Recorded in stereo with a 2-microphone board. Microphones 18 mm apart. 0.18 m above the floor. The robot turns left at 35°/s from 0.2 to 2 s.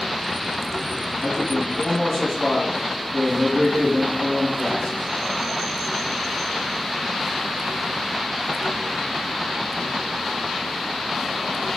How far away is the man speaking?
About 1.5 m.